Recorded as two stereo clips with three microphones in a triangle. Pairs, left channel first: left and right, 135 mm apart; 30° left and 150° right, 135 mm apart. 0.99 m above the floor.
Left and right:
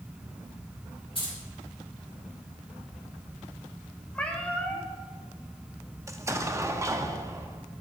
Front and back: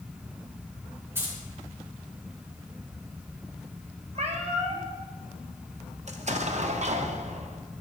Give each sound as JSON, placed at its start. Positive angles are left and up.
{"t": 1.1, "sound": "keys jangling", "azimuth_deg": 140, "distance_m": 3.0}
{"t": 4.2, "sound": "a cat meowing", "azimuth_deg": 170, "distance_m": 0.9}
{"t": 6.1, "sound": "an explosion", "azimuth_deg": -155, "distance_m": 0.5}